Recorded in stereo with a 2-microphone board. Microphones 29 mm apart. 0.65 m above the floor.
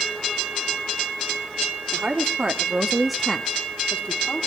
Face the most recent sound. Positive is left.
turn(degrees=60)  # may be behind; listen again after turning